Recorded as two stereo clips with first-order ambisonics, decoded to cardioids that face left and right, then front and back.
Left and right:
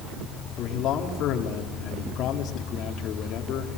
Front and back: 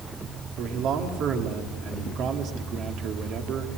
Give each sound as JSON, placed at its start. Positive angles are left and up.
{"t": 0.6, "sound": "a man speaking", "azimuth_deg": 135, "distance_m": 2.0}